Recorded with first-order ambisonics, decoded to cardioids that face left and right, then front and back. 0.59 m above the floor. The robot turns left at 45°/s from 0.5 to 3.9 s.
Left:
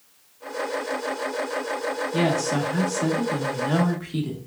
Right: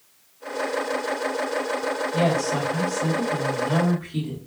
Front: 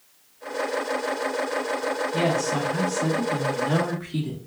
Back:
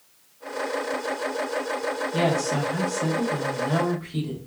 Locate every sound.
2.1 s a woman speaking: 130° left, 1.3 m; by 4.4 s 50° left, 1.3 m